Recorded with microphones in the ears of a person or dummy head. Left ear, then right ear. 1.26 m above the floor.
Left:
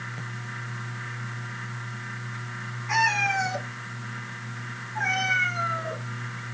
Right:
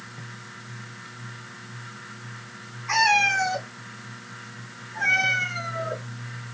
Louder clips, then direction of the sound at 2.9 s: Right 3 dB; 30° right (ahead or behind).